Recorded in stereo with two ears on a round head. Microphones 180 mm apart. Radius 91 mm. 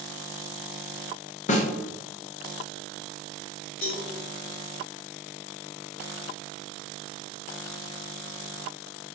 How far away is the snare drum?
About 0.6 m.